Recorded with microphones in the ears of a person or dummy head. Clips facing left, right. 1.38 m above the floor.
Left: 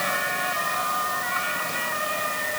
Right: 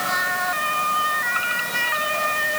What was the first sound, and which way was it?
Only background noise.